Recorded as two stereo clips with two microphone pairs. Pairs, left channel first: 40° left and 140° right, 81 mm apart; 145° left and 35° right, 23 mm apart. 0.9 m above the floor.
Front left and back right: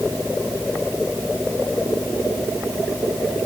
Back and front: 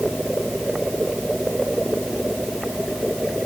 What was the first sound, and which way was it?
Only background noise.